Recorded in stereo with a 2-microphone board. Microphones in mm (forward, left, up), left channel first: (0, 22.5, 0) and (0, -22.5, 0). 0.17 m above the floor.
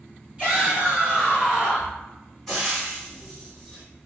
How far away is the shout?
About 1.8 m.